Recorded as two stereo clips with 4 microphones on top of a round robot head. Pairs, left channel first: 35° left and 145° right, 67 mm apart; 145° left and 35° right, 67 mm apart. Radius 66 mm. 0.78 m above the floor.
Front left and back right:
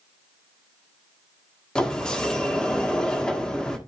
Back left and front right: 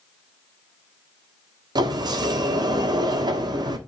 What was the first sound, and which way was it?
A sliding door, 45° right.